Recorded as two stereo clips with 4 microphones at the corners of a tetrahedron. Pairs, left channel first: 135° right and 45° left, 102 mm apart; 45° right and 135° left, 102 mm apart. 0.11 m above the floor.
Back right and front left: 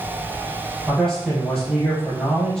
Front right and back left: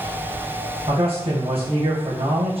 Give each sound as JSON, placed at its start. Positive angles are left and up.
{"t": 0.9, "sound": "a man speaking", "azimuth_deg": 140, "distance_m": 3.5}